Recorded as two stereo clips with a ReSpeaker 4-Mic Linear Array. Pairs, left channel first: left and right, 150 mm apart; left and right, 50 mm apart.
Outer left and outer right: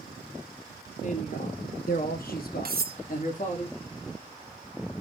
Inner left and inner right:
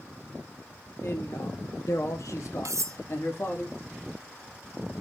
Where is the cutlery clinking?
75° right (ahead or behind), 0.7 m.